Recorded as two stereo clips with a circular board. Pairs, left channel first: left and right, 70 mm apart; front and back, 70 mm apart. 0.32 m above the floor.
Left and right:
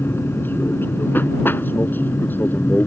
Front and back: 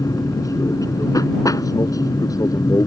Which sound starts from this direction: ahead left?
An aircraft, at 0.0 s.